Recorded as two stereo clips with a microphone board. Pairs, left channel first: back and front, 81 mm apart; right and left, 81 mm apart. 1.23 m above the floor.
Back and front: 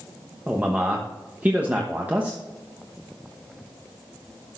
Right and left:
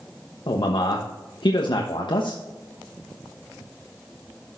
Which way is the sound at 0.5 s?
70° right.